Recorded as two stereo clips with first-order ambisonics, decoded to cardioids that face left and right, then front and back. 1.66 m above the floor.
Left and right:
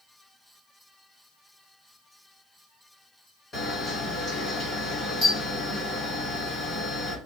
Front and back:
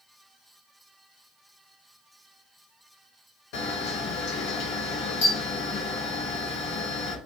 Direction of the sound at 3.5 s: 15° left.